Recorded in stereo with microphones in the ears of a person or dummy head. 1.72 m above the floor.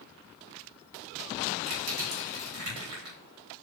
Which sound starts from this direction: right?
Crushing, at 1.7 s.